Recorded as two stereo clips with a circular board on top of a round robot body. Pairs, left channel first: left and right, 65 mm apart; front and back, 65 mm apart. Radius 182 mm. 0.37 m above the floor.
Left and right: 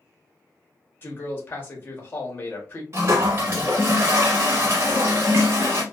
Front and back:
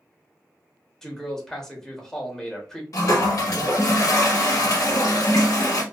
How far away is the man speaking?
About 1.1 m.